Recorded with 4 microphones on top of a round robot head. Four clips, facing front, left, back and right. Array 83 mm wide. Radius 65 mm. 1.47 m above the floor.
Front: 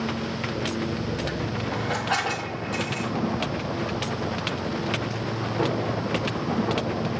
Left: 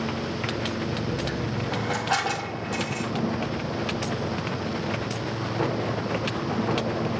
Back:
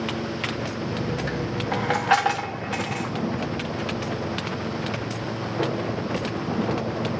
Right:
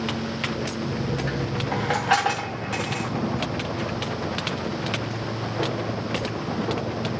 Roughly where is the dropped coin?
Behind right.